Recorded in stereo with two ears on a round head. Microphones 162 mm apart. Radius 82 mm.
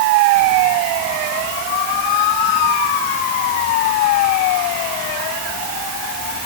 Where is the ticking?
No ticking in this recording.